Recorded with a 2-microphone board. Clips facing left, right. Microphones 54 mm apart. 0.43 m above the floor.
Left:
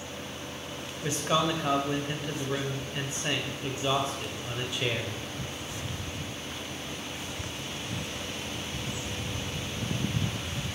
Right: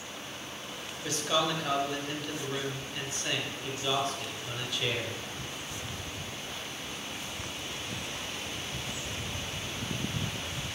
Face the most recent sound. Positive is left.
turn(degrees=25)  # may be behind; listen again after turning